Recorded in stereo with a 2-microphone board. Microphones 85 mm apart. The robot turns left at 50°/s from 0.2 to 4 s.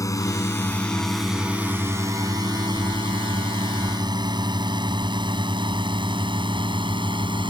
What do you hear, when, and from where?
0.0 s a drone: 40° left (ahead or behind); by 7.5 s 75° right (ahead or behind)